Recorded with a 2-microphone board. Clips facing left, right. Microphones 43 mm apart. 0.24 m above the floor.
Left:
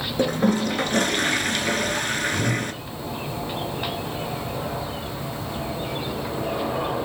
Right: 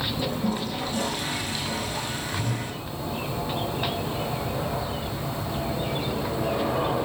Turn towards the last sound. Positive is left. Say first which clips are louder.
# left 10 dB
turn(degrees=75)  # may be behind; listen again after turning